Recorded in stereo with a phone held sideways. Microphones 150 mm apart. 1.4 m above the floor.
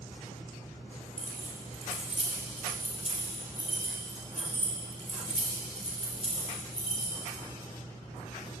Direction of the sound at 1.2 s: 55° right (ahead or behind).